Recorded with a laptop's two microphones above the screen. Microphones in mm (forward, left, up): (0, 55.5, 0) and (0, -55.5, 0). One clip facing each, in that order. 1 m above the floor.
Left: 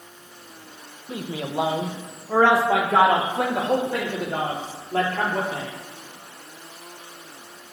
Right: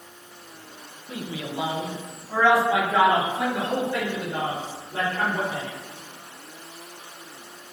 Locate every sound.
1.1 s a man speaking: 30° left (ahead or behind), 0.6 m; by 5.7 s 80° left, 3.5 m